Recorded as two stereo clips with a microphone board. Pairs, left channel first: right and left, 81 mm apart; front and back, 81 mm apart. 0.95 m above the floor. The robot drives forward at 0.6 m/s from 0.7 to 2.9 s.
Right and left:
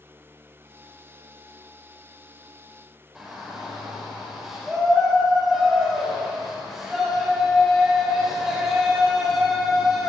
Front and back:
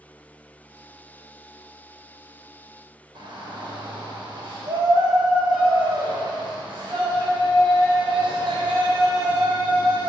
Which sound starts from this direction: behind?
A shout, at 3.1 s.